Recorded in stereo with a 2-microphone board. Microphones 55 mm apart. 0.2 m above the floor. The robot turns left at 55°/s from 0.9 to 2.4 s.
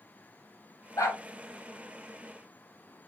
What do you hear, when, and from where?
1.0 s a dog barking: 80° left, 3 m